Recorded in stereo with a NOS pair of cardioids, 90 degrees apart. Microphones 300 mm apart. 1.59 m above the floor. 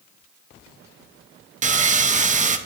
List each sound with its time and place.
1.6 s sawing: 25° right, 0.8 m